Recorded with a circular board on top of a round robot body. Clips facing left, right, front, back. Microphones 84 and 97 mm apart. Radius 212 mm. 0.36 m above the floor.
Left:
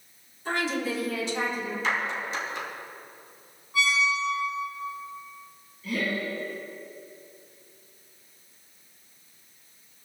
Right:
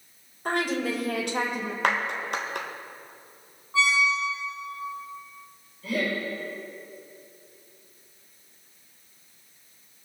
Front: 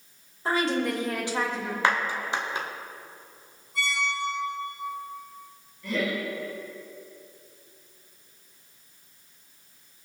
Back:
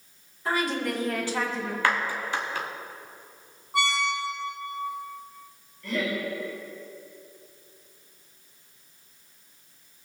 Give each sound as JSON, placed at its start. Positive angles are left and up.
{"t": 0.5, "sound": "a woman speaking", "azimuth_deg": -60, "distance_m": 3.0}
{"t": 1.8, "sound": "a clap", "azimuth_deg": -70, "distance_m": 1.7}
{"t": 3.7, "sound": "a squeak", "azimuth_deg": -155, "distance_m": 1.1}
{"t": 5.8, "sound": "laughter", "azimuth_deg": -80, "distance_m": 4.5}